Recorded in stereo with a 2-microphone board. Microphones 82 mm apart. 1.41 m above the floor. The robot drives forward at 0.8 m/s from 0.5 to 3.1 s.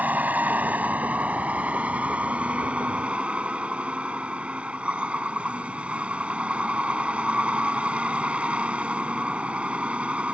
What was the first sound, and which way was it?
A vehicle, 20° right (ahead or behind).